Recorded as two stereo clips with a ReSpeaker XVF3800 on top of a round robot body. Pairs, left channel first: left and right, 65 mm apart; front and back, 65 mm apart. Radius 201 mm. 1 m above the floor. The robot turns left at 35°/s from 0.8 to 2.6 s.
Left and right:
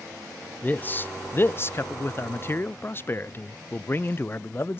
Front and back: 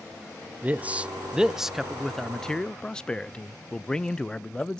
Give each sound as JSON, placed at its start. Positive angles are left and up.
{"t": 0.6, "sound": "a man speaking", "azimuth_deg": 130, "distance_m": 0.5}